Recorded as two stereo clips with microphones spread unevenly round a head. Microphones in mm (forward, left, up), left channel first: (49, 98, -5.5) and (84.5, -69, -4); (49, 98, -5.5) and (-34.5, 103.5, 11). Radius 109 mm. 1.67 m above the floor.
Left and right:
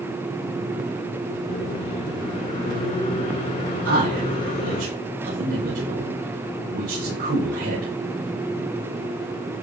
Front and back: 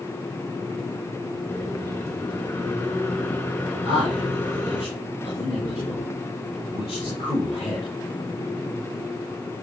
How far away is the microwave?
About 2.5 m.